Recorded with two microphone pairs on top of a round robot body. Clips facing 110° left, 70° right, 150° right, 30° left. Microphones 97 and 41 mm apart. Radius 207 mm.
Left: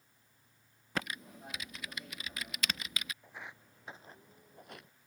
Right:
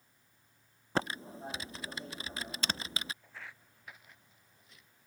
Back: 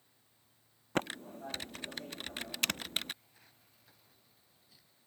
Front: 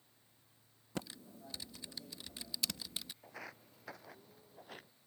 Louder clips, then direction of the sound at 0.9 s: Right 5 dB, back 10 dB; 130° right.